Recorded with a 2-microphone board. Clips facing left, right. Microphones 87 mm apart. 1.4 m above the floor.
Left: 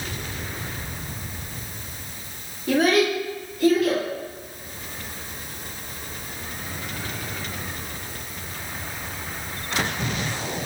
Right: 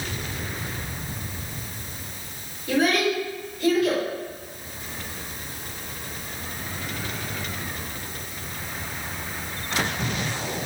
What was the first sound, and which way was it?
A child speaking, 55° left (ahead or behind).